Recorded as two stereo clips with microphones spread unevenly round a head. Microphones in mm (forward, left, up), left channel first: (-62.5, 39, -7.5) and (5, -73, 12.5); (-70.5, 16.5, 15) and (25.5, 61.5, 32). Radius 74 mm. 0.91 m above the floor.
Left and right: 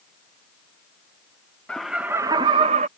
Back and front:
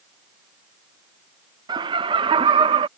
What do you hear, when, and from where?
1.7 s laughter: 55° left; by 2.9 s 20° right